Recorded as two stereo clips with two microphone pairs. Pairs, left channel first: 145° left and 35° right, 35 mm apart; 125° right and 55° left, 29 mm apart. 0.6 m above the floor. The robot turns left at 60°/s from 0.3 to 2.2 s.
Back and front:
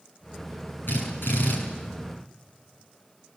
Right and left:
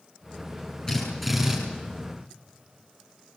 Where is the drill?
170° left, 8.5 m; by 1.6 s 130° left, 8.5 m.